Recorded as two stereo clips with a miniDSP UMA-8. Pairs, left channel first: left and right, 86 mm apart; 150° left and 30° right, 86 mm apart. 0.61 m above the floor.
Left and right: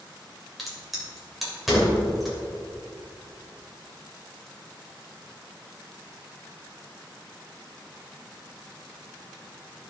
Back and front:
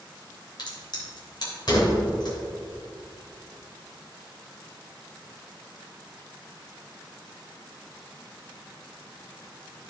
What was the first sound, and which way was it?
A crack, straight behind.